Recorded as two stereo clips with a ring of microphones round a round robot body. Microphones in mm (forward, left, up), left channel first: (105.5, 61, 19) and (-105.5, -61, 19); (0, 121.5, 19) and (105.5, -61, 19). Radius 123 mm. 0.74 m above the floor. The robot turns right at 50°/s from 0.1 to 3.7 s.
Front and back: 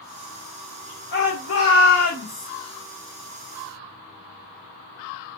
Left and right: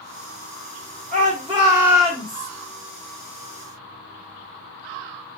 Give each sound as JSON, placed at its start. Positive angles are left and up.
{"t": 1.1, "sound": "a shout", "azimuth_deg": -15, "distance_m": 1.7}